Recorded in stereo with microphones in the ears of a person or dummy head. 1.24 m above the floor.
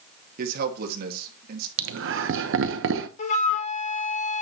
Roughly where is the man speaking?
Right.